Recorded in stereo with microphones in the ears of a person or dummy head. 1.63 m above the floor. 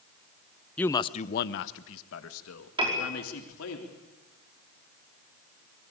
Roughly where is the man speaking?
Centre.